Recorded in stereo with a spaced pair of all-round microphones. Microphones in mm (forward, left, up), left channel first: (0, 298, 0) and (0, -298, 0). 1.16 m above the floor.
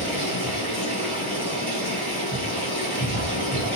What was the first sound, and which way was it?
Running water, 50° left (ahead or behind).